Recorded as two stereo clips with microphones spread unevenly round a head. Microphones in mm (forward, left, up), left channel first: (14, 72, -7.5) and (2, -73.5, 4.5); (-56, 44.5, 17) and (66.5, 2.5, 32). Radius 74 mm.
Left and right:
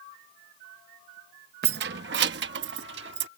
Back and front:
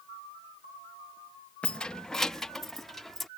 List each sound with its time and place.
1.6 s keys jangling: 115° right; by 3.3 s 110° right